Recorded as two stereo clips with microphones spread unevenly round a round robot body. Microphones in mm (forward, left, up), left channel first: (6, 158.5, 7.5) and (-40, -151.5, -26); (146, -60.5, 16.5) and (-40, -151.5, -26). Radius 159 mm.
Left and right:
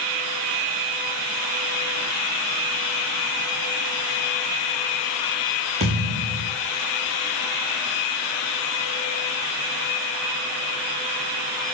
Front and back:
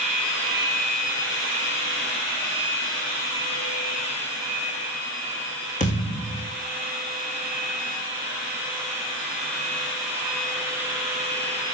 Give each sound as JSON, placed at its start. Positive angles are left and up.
{"t": 5.8, "sound": "a thud", "azimuth_deg": -30, "distance_m": 4.5}